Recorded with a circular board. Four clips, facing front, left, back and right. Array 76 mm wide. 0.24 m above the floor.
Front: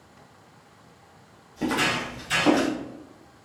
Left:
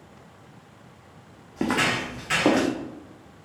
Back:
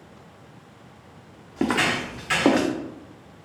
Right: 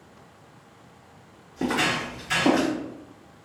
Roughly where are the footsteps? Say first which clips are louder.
Left 1 dB, back 2 dB; behind left.